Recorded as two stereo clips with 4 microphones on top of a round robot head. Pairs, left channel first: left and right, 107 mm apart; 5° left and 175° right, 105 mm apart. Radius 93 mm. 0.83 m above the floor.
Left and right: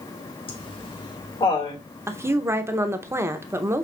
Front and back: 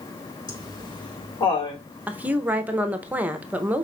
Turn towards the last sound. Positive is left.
turn(degrees=-120)